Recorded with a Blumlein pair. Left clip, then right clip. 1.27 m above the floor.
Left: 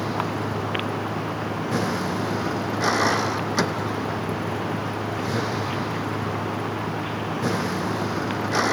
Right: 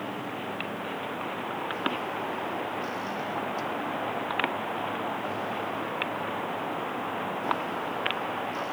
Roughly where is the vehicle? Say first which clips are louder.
Left 8 dB; ahead left.